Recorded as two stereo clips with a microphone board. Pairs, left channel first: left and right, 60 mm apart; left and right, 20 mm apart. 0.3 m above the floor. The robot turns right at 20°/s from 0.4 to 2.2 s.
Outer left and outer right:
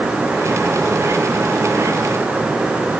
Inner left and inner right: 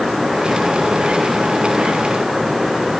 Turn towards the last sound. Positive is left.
No sound to turn to.